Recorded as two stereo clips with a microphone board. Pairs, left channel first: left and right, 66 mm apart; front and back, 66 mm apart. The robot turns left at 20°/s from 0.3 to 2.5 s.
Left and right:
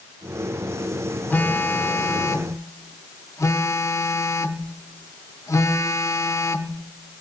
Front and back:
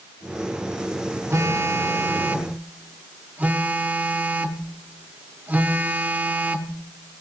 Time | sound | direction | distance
1.3 | a phone buzzing | 145° left | 0.8 m